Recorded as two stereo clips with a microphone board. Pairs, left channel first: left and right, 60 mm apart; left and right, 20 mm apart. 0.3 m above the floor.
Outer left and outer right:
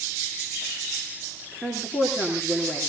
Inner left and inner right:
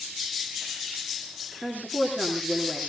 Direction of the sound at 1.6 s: 10° right (ahead or behind).